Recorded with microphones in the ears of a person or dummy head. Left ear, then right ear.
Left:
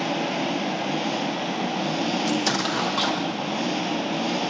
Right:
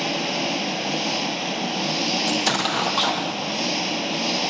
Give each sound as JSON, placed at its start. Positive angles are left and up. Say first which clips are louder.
{"t": 0.0, "sound": "an engine running", "louder": "right 1 dB", "side_deg": -20}
{"t": 2.3, "sound": "an explosion", "louder": "right 2 dB", "side_deg": -30}